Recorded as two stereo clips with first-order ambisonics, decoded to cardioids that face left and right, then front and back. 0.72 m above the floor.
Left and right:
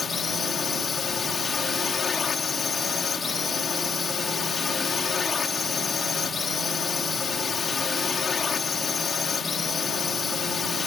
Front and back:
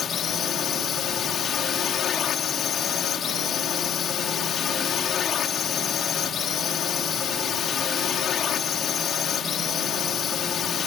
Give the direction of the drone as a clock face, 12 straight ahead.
11 o'clock.